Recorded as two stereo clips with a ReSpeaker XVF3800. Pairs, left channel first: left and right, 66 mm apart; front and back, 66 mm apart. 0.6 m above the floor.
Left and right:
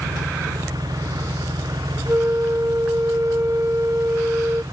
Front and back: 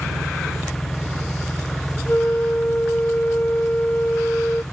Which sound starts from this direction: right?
An engine running, at 0.0 s.